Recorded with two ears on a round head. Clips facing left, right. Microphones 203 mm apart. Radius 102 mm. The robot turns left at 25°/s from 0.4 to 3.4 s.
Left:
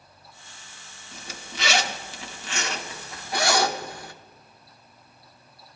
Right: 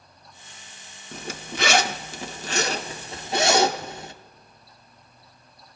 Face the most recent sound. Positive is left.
turn(degrees=-20)  # may be behind; listen again after turning